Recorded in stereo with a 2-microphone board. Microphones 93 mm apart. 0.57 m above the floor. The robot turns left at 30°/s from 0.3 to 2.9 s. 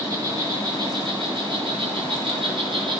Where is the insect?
45° right, 2.5 m; by 3.0 s 120° right, 2.5 m.